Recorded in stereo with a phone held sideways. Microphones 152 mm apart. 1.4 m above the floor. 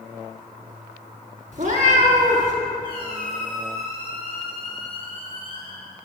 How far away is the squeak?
About 1.9 m.